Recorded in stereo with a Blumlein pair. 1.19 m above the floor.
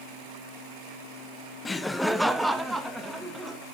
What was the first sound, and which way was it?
Laughter, 15° left.